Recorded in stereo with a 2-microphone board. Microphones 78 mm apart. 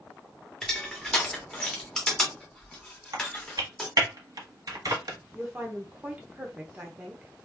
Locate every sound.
0.6 s crushing: 10° left (ahead or behind), 1.3 m
3.1 s typing on a keyboard: 55° right (ahead or behind), 1.3 m
5.3 s a woman speaking: 20° right (ahead or behind), 1.1 m